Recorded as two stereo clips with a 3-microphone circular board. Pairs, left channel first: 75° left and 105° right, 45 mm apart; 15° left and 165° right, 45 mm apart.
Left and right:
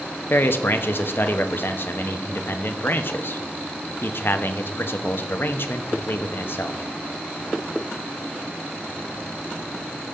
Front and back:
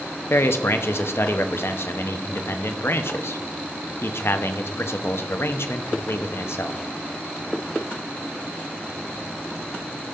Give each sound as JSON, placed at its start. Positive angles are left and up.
{"t": 0.3, "sound": "a man speaking", "azimuth_deg": 40, "distance_m": 0.9}